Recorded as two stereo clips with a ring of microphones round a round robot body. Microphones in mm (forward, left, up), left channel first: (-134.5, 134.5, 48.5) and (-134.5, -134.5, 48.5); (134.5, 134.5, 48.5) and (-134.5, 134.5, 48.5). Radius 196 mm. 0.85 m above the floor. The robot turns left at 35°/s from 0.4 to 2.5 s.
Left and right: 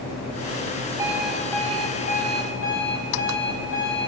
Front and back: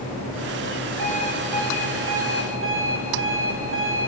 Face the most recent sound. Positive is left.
turn(degrees=135)